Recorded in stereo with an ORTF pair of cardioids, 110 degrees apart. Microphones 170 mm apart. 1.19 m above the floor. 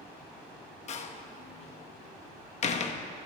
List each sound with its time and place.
0.9 s a door slam: 45° left, 0.9 m